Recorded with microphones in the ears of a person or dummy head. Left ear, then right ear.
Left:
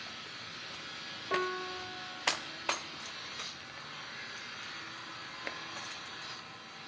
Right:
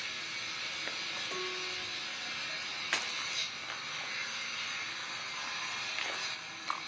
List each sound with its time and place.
0.0 s an engine running: 75° right (ahead or behind), 10 m
1.3 s a piano: 75° left (ahead or behind), 1.0 m